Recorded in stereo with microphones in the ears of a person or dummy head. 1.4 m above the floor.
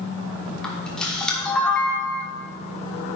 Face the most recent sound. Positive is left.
turn(degrees=10)  # may be behind; listen again after turning